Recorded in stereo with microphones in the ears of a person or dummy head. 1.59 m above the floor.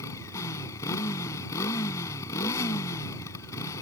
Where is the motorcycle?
20° left (ahead or behind).